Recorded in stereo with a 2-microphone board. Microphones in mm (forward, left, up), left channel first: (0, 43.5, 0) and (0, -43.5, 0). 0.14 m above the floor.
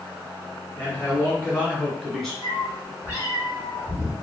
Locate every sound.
0.8 s a man speaking: 20° left (ahead or behind), 1.2 m; by 2.3 s 10° left (ahead or behind), 1.4 m
2.4 s a cat meowing: 25° right (ahead or behind), 1.5 m